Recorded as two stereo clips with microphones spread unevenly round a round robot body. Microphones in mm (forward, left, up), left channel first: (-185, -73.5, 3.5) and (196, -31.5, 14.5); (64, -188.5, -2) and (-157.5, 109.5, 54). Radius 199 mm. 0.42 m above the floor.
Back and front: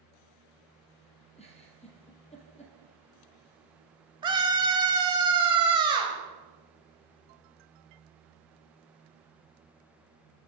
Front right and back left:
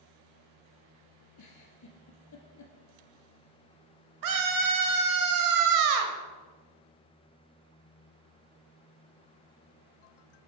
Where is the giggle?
100° right, 2.5 m.